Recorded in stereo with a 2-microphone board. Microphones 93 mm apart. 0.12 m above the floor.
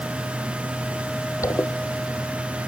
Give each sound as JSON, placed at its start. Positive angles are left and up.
{"t": 1.4, "sound": "a zipper", "side_deg": 35, "distance_m": 1.1}